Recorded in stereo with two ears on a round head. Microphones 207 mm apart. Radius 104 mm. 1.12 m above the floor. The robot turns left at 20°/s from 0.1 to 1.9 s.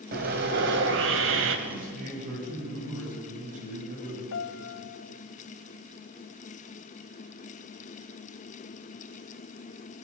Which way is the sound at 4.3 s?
55° left (ahead or behind).